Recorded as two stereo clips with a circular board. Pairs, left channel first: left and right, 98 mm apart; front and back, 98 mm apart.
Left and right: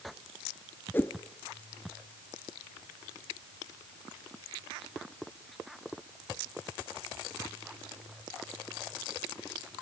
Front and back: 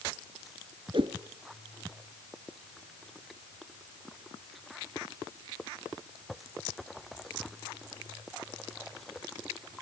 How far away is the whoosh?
About 1.2 m.